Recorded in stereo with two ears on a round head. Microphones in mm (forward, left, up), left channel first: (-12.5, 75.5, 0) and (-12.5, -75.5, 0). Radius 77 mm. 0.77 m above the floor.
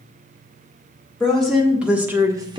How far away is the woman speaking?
About 1.8 m.